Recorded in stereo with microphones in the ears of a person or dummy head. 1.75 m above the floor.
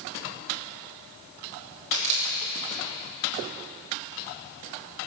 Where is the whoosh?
No whoosh in this recording.